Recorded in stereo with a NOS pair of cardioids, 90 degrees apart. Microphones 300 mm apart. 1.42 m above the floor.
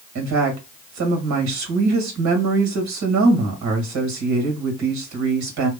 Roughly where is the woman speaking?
Right.